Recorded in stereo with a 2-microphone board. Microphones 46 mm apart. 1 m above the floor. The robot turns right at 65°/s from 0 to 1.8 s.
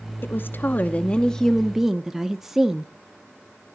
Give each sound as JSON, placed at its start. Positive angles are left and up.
{"t": 0.2, "sound": "a woman speaking", "azimuth_deg": 90, "distance_m": 0.6}